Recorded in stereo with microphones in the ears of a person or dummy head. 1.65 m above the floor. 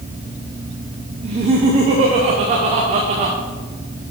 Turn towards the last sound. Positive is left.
turn(degrees=-25)  # may be behind; listen again after turning